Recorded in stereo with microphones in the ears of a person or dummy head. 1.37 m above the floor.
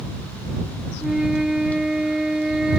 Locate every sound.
1.0 s a flute: 5° right (ahead or behind)